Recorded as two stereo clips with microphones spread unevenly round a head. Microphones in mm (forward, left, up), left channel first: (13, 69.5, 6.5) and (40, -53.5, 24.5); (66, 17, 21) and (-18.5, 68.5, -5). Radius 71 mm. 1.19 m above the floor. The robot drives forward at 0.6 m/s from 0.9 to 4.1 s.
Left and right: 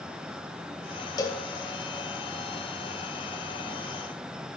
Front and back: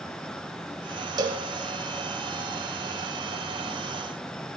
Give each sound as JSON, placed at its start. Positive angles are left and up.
{"t": 1.2, "sound": "a cowbell", "azimuth_deg": 140, "distance_m": 0.5}